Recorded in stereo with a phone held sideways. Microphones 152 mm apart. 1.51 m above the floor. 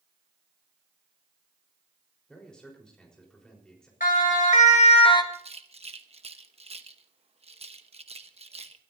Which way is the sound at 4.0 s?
70° left (ahead or behind).